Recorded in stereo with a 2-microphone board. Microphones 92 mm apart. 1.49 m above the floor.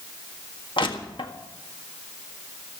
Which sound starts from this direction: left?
Crushing, at 0.8 s.